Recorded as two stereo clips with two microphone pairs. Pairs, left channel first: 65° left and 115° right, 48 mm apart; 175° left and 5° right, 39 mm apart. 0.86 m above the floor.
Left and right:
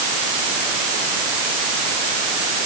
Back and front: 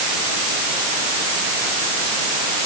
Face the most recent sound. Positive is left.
No sound to turn to.